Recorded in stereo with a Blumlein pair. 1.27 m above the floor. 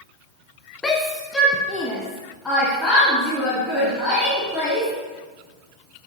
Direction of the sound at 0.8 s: 15° left.